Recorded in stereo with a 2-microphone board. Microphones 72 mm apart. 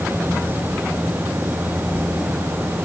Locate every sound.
Only background noise.